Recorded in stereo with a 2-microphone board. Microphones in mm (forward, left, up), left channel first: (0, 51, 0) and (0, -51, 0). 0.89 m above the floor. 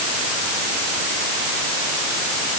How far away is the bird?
I don't hear a bird.